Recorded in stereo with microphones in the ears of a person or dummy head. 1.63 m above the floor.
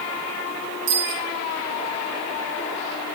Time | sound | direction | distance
0.9 | a bicycle bell | 30° right (ahead or behind) | 9 m